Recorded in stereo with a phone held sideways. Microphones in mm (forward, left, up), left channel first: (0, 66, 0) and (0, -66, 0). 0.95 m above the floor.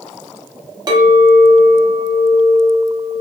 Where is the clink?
30° right (ahead or behind), 0.6 m.